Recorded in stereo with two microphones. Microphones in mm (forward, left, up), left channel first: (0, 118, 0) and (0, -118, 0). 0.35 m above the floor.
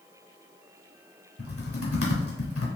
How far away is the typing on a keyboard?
About 1.4 m.